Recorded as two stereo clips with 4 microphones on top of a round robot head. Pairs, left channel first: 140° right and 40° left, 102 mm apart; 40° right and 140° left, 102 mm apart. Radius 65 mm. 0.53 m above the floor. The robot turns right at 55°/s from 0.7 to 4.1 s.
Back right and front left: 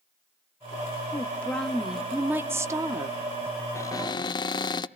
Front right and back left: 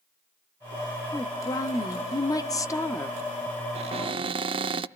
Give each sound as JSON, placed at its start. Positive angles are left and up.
{"t": 1.1, "sound": "a woman speaking", "azimuth_deg": -90, "distance_m": 1.2}
{"t": 3.8, "sound": "a cupboard door", "azimuth_deg": 155, "distance_m": 0.6}